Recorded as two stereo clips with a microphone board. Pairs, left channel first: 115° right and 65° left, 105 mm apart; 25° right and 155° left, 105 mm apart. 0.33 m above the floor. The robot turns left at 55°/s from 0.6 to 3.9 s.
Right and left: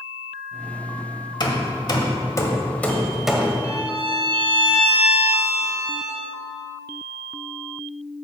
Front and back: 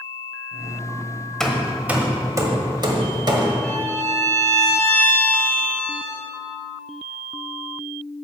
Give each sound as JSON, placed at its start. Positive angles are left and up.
{"t": 1.4, "sound": "hammering", "azimuth_deg": -105, "distance_m": 1.1}
{"t": 3.6, "sound": "a violin", "azimuth_deg": 60, "distance_m": 1.7}